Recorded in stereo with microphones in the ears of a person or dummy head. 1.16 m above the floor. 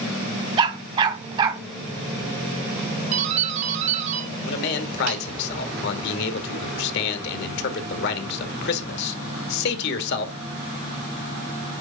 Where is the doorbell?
40° right (ahead or behind), 1.3 m.